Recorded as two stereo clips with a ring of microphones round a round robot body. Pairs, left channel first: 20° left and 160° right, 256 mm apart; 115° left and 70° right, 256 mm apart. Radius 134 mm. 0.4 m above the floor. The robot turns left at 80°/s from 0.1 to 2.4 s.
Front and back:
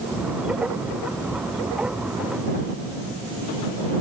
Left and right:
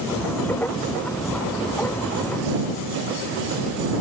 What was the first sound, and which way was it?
Only background noise.